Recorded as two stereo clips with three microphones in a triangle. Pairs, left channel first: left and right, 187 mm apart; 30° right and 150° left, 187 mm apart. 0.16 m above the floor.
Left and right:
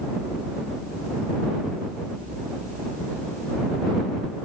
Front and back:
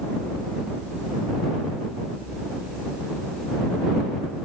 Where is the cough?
I don't hear a cough.